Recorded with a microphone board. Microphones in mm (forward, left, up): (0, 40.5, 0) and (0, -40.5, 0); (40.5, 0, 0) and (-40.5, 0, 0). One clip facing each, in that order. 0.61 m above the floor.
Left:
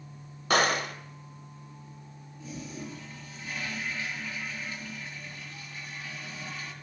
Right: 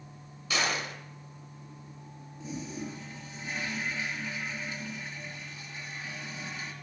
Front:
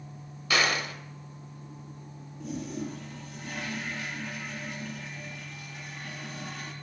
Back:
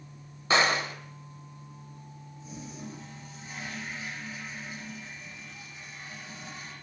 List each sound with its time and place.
0.5 s a gunshot: 120° left, 2 m
2.4 s a toilet flushing: 25° right, 4 m